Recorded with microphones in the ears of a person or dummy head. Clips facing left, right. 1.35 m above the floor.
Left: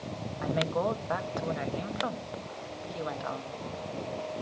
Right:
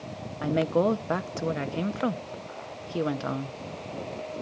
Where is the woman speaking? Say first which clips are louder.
Right 6 dB; 45° right (ahead or behind), 0.6 m.